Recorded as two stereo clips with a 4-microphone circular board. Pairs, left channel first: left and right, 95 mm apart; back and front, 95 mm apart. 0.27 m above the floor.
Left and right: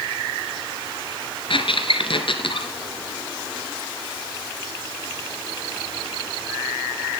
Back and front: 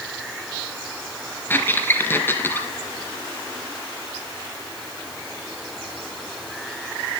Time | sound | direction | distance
1.5 | a squeak | 115° left | 2.5 m